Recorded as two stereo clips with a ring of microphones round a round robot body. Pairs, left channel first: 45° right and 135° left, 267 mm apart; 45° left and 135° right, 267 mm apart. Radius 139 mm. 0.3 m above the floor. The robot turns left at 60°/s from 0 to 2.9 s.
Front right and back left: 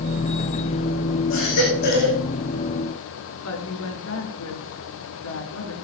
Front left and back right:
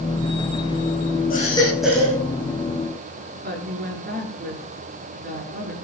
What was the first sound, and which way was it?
A baby crying, 15° right.